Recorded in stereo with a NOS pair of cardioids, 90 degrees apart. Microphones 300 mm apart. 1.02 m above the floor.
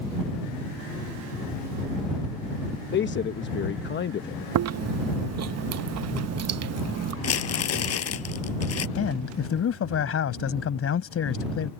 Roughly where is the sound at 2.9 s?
Ahead left.